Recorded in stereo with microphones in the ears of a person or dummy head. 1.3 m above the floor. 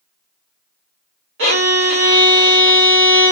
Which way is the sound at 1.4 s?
60° right (ahead or behind).